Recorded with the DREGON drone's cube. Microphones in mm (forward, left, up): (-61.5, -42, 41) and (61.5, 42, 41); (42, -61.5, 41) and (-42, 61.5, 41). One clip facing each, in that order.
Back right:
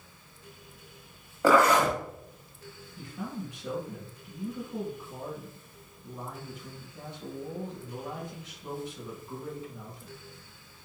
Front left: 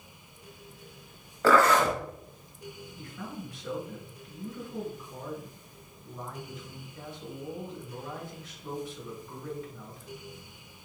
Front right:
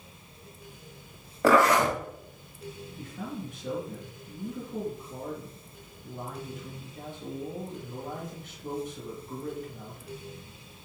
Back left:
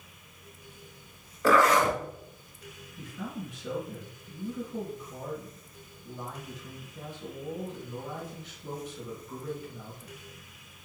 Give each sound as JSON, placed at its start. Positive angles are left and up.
{"t": 1.4, "sound": "a zipper", "azimuth_deg": -70, "distance_m": 1.2}
{"t": 3.0, "sound": "a man speaking", "azimuth_deg": -80, "distance_m": 2.0}